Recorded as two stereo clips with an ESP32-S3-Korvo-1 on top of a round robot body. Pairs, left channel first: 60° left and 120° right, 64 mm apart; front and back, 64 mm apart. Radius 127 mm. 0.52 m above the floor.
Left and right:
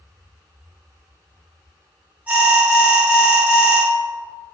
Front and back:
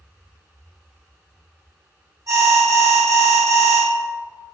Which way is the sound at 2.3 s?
175° left.